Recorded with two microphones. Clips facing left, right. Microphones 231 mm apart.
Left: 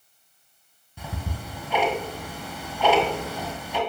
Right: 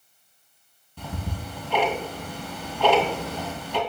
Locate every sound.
1.0 s ticking: 10° left (ahead or behind), 1.8 m